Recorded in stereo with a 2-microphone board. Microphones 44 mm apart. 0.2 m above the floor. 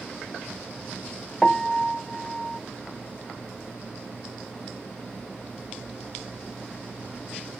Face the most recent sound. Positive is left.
turn(degrees=5)  # may be behind; listen again after turning